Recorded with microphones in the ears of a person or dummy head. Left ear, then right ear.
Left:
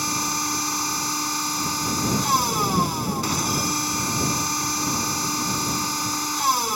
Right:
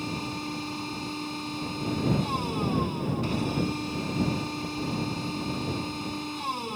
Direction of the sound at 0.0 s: 55° left (ahead or behind).